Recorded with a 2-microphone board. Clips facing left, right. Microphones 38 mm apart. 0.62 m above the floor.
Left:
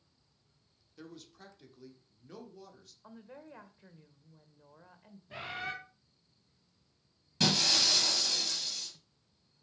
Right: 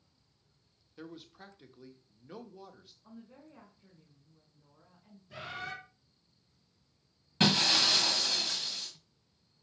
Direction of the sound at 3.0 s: 70° left (ahead or behind).